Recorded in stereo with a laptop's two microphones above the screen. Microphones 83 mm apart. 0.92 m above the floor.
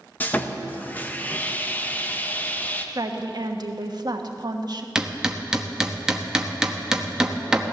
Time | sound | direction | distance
0.2 | sawing | 20° left (ahead or behind) | 1.1 m
3.0 | a woman speaking | 55° right (ahead or behind) | 1.2 m
5.0 | hammering | 10° right (ahead or behind) | 0.8 m